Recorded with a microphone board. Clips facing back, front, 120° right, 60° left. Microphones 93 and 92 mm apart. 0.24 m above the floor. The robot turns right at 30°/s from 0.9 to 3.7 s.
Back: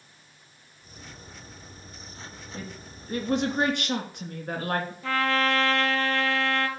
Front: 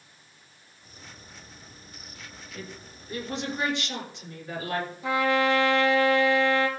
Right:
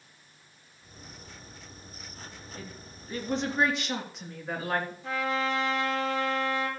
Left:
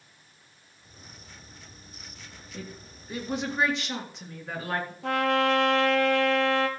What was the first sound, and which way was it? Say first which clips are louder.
A woman speaking: back 1 dB, left 5 dB; 115° left.